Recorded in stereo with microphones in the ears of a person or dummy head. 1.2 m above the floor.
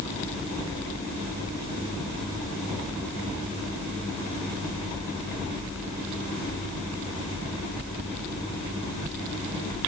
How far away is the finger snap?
I don't hear a finger snap.